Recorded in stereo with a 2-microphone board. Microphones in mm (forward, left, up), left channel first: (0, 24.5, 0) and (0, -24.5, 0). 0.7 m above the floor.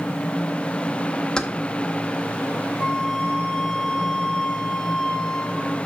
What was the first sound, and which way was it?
Keys jangling, 15° left (ahead or behind).